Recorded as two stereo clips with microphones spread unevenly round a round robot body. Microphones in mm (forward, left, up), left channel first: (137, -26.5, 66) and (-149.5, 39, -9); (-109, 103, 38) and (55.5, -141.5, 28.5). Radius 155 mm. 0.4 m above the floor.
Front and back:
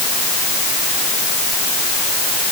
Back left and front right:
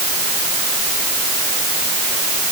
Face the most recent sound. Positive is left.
No sound to turn to.